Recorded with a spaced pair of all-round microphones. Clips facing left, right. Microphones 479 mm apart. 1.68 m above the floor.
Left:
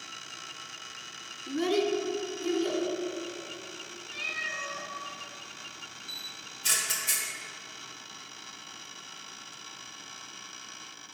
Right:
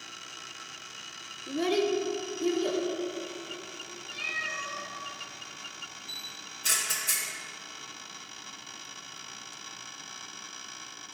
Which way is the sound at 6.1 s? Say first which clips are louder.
Right 1 dB; 20° left (ahead or behind).